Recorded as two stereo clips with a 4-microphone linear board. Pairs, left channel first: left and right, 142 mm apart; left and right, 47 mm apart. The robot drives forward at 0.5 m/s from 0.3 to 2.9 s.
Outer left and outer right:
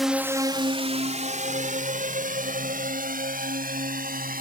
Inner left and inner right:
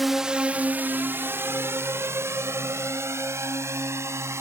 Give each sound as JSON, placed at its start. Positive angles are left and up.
{"t": 0.0, "sound": "a drone", "side_deg": 0}